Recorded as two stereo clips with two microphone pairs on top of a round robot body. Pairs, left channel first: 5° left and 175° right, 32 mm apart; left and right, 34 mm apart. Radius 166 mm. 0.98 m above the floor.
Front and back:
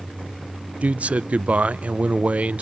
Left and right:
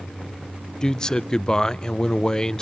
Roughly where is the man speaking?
Behind left.